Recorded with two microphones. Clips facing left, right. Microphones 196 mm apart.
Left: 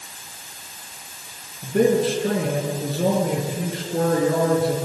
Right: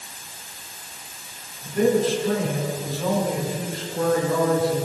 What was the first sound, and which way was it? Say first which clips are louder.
A man speaking: left 2 dB; 70° left (ahead or behind).